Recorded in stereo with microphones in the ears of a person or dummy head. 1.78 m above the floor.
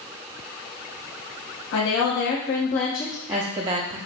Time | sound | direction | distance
1.7 | a woman speaking | 55° left (ahead or behind) | 1.0 m